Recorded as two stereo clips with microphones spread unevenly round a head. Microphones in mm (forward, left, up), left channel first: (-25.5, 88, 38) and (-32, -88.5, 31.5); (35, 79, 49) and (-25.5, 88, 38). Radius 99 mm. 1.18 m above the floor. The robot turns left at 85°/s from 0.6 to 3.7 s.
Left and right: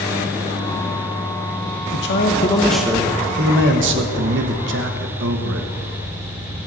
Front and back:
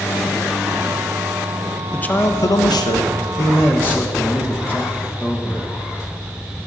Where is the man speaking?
65° left, 1.2 m; by 5.7 s 85° right, 1.2 m.